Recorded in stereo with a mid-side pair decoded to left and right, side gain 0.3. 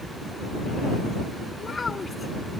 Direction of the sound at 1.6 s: 45° left.